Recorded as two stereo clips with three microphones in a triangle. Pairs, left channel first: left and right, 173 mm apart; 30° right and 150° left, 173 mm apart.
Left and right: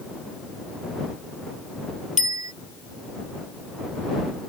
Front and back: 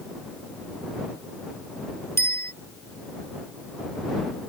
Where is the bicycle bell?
45° left.